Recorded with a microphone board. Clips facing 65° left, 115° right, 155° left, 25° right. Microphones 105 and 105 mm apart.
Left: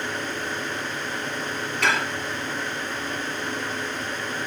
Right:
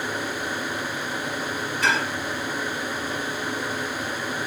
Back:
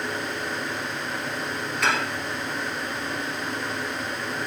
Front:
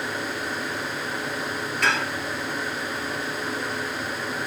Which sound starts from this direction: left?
Dishes clattering, at 1.8 s.